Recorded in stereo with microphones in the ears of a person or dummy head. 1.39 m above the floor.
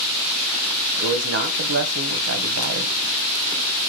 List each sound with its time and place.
1.0 s a man speaking: 60° right (ahead or behind), 0.9 m